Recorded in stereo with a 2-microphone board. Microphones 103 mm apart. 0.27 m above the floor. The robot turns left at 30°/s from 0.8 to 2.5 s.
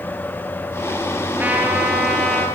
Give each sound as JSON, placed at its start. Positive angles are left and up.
{"t": 1.4, "sound": "a trumpet", "azimuth_deg": -160, "distance_m": 5.5}